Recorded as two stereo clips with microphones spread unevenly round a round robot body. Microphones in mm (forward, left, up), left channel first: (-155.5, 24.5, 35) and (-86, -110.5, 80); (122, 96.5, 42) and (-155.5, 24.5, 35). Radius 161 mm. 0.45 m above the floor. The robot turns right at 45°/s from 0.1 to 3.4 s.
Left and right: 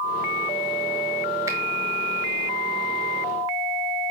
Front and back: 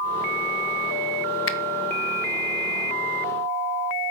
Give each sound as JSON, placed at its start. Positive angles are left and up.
{"t": 1.5, "sound": "a finger snap", "azimuth_deg": 20, "distance_m": 0.6}